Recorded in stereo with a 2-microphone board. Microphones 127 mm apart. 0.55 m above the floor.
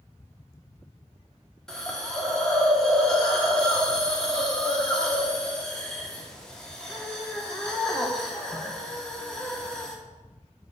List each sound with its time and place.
1.7 s a hiss: 5° left (ahead or behind), 1.2 m